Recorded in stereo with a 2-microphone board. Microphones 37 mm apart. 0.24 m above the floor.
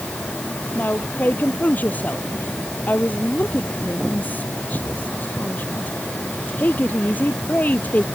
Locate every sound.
0.8 s a woman speaking: 50° left (ahead or behind)